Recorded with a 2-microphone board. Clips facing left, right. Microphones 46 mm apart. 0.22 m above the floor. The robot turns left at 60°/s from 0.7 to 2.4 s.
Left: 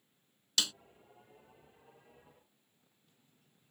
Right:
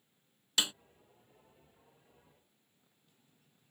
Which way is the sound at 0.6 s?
25° right (ahead or behind).